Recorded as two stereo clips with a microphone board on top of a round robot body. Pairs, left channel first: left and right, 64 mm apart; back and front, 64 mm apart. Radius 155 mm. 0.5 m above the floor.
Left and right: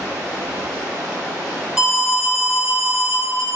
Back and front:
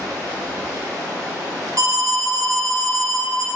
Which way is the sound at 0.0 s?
25° right.